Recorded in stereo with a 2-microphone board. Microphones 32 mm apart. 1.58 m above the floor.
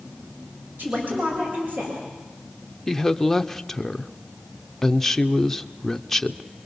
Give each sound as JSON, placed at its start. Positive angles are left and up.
{"t": 0.8, "sound": "a woman speaking", "side_deg": -60, "distance_m": 7.0}
{"t": 2.9, "sound": "a woman speaking", "side_deg": 10, "distance_m": 0.8}